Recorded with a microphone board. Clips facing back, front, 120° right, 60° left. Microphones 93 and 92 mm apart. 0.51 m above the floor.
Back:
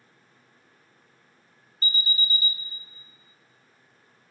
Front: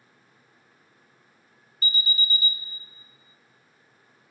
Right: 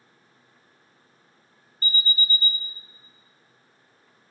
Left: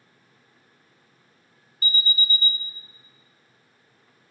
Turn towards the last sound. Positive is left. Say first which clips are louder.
# front 1 dB, even
turn(degrees=-140)